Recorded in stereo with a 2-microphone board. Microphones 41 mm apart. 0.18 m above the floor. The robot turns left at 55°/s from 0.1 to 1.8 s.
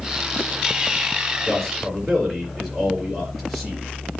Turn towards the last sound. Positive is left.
turn(degrees=-5)  # may be behind; listen again after turning